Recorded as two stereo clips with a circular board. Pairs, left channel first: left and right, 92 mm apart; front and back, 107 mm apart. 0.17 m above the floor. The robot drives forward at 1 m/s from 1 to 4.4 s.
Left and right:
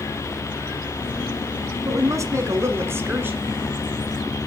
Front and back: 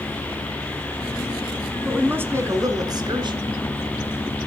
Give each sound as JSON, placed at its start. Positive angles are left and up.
{"t": 1.9, "sound": "a woman speaking", "azimuth_deg": -105, "distance_m": 1.5}